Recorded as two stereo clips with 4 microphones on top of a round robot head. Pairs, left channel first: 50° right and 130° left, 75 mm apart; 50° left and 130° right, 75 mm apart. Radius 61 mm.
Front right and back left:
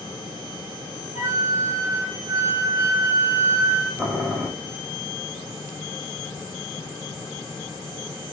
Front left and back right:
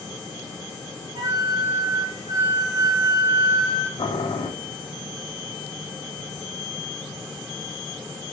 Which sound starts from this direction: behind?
A flute, at 1.1 s.